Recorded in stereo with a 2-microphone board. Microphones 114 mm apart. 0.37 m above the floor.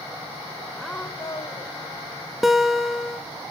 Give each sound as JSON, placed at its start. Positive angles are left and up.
{"t": 0.8, "sound": "a woman speaking", "side_deg": 0, "distance_m": 1.0}
{"t": 2.4, "sound": "a guitar", "side_deg": 0, "distance_m": 0.9}